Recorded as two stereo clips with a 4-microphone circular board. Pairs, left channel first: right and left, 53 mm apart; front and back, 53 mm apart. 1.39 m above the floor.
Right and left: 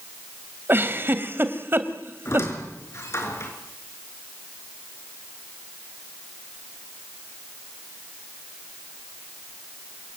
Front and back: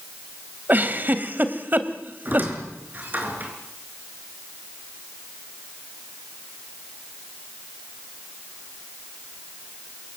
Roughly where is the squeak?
Behind right.